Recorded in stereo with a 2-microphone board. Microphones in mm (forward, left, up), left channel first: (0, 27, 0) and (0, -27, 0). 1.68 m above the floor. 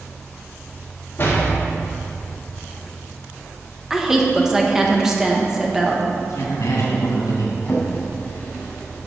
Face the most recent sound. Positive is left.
turn(degrees=30)  # may be behind; listen again after turning